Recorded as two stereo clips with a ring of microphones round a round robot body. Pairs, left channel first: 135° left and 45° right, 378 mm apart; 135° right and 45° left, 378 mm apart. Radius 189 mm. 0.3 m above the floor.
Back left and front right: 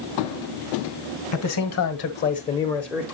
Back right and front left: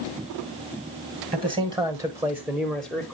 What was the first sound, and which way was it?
A man speaking, 115° left.